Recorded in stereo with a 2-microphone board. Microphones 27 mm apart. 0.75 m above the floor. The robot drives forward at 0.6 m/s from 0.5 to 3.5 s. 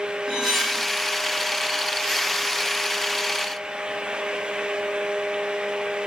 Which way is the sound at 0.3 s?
20° right (ahead or behind).